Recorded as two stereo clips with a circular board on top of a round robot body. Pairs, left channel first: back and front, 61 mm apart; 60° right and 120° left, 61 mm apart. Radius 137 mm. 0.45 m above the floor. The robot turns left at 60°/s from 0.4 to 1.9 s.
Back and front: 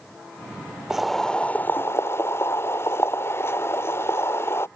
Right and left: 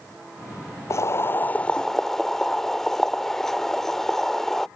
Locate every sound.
0.9 s boiling: 85° right; by 4.7 s 145° right